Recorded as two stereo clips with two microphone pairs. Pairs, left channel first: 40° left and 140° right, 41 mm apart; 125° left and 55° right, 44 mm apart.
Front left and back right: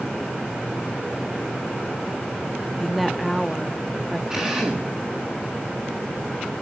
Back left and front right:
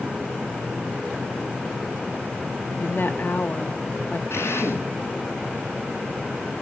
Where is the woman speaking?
130° left, 1.3 m.